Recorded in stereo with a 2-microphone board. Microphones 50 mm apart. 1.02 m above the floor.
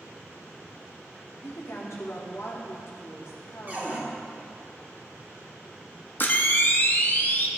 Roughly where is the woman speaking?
Left.